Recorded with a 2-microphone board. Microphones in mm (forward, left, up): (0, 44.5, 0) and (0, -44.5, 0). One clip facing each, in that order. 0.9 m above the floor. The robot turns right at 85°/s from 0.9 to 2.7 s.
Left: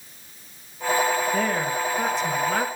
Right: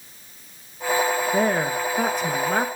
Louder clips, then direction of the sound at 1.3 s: Right 3 dB; 145° right.